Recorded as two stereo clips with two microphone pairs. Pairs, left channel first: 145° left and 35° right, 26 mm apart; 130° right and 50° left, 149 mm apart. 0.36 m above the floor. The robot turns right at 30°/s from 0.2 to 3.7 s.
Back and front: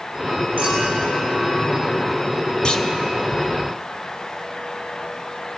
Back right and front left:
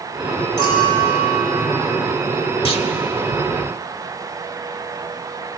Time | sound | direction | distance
0.6 | a clink | 170° left | 6 m
2.6 | a clunk | 165° right | 1.0 m